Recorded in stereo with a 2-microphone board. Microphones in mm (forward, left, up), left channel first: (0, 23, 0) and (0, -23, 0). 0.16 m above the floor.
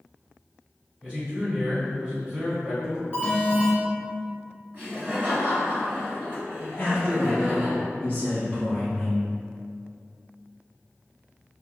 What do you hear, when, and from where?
1.0 s a man speaking: 20° right (ahead or behind), 1.3 m
3.1 s an alarm: 20° right (ahead or behind), 1.1 m
4.7 s laughter: 35° right (ahead or behind), 1.7 m
6.8 s a man speaking: 30° left (ahead or behind), 1.1 m